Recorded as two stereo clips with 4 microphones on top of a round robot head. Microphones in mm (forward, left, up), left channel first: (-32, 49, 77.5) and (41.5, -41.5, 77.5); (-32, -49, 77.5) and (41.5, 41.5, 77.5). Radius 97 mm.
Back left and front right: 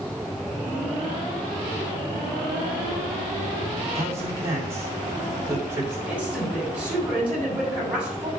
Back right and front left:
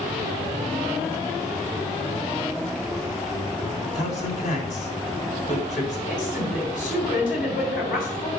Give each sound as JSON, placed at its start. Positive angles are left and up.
{"t": 3.8, "sound": "a man speaking", "azimuth_deg": -120, "distance_m": 3.5}
{"t": 6.1, "sound": "a woman speaking", "azimuth_deg": -130, "distance_m": 6.0}